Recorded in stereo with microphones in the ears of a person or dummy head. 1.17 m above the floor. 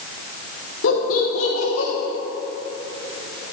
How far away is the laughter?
About 3.5 m.